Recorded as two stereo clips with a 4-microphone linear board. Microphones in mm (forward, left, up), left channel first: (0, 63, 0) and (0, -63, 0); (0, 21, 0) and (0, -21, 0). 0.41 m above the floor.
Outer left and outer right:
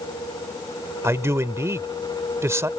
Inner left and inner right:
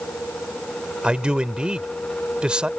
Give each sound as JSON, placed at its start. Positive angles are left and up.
{"t": 1.0, "sound": "a man speaking", "side_deg": -25}